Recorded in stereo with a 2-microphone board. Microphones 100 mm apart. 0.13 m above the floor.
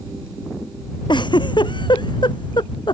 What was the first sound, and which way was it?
A giggle, 50° left (ahead or behind).